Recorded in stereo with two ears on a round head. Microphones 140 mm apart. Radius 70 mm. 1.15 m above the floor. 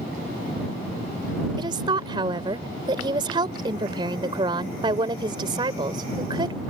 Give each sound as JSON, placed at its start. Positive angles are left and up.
{"t": 1.6, "sound": "a woman speaking", "side_deg": -30}